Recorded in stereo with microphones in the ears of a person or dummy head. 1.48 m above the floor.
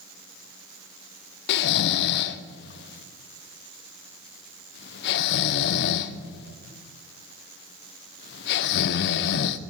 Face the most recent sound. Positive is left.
turn(degrees=65)  # may be behind; listen again after turning